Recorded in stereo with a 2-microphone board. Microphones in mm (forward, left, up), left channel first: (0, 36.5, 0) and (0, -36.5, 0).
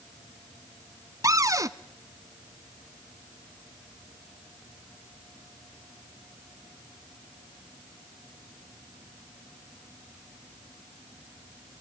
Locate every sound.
1.2 s a cupboard door: 50° right (ahead or behind), 0.6 m